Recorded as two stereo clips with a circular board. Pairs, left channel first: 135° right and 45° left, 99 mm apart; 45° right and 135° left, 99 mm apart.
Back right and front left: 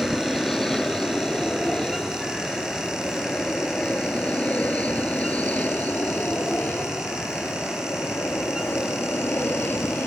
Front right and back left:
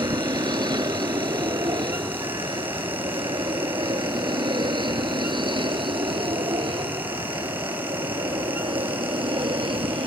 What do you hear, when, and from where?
0.0 s an aircraft: 140° left; by 10.1 s 155° left